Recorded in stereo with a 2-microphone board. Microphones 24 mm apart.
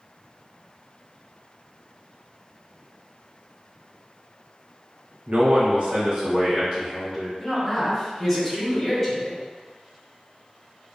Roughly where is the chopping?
I don't hear chopping.